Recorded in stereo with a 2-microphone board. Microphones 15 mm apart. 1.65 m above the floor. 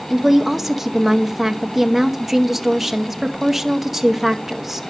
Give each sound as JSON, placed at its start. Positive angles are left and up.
{"t": 0.1, "sound": "a woman speaking", "side_deg": -20, "distance_m": 1.1}